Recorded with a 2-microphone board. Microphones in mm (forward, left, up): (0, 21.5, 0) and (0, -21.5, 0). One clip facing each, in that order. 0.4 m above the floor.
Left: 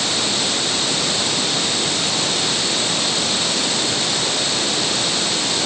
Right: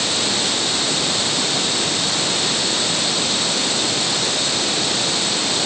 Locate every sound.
Only background noise.